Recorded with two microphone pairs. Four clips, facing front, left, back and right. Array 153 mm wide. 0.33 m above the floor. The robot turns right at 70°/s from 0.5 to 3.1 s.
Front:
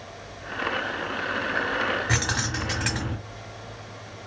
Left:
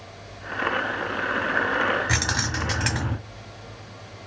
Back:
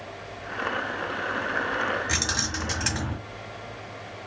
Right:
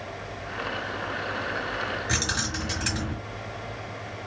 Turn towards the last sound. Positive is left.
turn(degrees=115)